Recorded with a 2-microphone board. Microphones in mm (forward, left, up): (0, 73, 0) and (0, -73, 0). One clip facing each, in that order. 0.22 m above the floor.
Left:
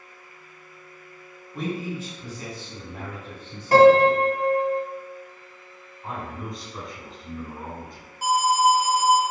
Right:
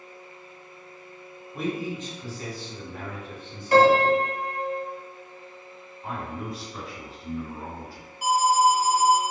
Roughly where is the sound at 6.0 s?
Centre.